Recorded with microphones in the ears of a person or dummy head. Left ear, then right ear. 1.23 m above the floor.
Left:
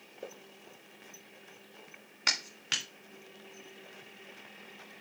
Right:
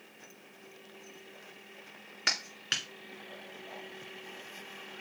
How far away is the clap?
About 2 m.